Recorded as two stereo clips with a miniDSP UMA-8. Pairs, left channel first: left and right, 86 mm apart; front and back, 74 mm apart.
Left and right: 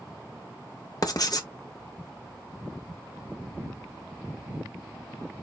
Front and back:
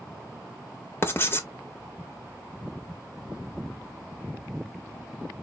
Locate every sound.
1.0 s writing: 55° left, 0.6 m